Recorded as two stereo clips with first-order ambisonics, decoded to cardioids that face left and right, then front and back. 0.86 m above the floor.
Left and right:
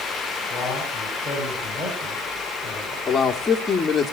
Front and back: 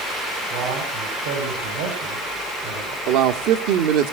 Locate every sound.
0.5 s a man speaking: 175° left, 5.5 m
3.1 s a man speaking: 165° left, 1.7 m